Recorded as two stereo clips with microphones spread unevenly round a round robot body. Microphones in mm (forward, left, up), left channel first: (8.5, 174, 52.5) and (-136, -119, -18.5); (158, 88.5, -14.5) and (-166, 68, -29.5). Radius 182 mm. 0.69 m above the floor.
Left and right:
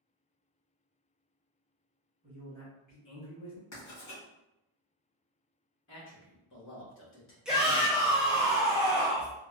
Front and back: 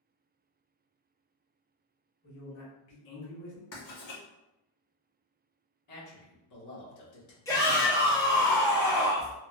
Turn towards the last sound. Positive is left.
turn(degrees=-70)